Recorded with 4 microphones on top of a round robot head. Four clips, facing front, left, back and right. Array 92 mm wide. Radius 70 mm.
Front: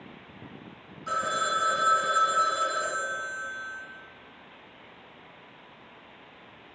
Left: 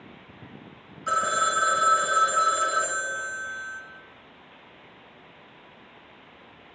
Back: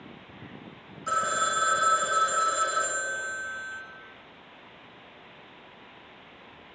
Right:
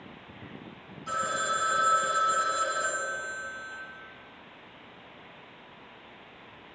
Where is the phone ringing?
100° left, 2.5 m.